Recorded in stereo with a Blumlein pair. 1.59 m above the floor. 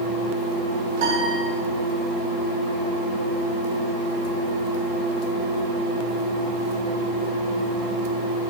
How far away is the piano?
About 3.5 m.